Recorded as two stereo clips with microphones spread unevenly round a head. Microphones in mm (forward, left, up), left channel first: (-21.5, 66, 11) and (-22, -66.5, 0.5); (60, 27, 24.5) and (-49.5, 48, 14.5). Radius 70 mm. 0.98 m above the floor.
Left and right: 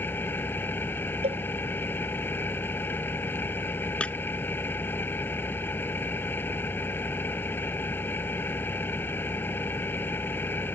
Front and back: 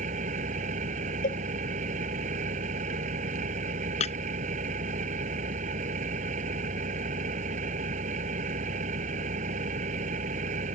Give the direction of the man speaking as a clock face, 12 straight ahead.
I don't hear a man speaking.